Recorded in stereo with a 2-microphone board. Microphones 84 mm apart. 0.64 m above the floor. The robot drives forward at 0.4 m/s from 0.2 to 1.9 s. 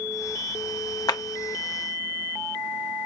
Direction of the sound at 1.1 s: 50° left (ahead or behind).